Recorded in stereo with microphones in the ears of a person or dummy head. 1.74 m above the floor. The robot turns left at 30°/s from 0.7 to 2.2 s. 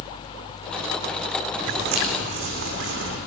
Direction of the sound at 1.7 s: 60° right (ahead or behind).